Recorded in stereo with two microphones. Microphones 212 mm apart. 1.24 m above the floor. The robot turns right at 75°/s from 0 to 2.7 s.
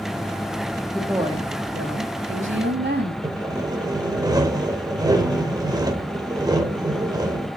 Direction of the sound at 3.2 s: 20° right (ahead or behind).